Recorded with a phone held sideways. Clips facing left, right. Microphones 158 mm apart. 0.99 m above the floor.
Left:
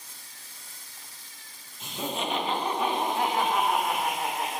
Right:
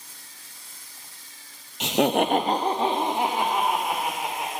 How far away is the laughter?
About 0.7 m.